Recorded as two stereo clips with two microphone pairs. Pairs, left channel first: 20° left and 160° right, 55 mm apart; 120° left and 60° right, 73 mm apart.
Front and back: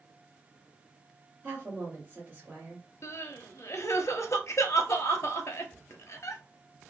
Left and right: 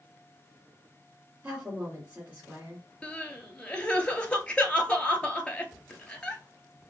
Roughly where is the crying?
Ahead left.